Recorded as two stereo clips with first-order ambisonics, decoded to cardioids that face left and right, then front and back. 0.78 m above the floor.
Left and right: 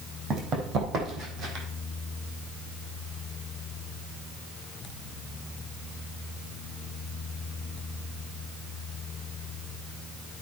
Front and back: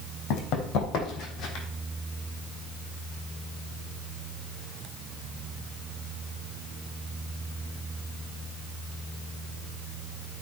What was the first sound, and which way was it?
Running footsteps, 35° right.